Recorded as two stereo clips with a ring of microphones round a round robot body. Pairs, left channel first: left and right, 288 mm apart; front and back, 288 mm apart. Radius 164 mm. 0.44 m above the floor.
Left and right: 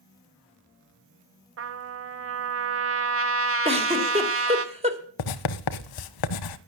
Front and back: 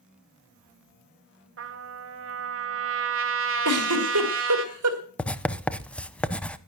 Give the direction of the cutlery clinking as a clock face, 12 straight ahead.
I don't hear cutlery clinking.